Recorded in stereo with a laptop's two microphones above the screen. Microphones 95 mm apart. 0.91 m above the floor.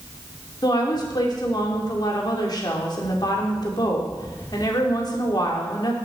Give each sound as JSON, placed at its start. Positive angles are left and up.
{"t": 0.6, "sound": "a woman speaking", "side_deg": 45, "distance_m": 2.0}